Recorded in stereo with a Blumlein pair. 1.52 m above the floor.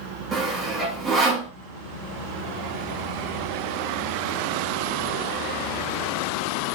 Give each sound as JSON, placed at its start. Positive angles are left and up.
{"t": 0.3, "sound": "sawing", "azimuth_deg": -10, "distance_m": 1.6}